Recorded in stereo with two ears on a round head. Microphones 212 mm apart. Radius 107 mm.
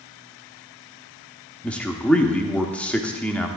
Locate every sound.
1.6 s a man speaking: 5° left (ahead or behind), 0.8 m